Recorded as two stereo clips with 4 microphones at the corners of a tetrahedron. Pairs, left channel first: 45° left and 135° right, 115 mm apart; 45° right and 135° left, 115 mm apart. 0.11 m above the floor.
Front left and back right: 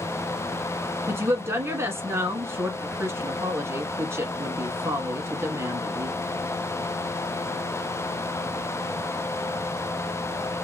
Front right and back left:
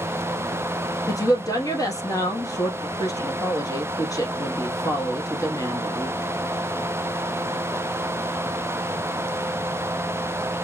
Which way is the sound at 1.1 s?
80° right.